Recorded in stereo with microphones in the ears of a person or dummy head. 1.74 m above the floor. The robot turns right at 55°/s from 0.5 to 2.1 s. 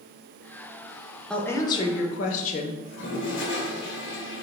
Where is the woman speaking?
5° left, 0.6 m; by 2.7 s 50° left, 0.6 m.